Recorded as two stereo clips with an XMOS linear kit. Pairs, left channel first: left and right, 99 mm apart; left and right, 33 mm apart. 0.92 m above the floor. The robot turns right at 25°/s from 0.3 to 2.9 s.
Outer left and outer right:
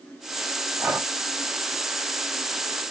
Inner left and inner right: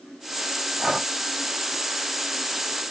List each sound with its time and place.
0.8 s breathing: 25° right (ahead or behind), 0.7 m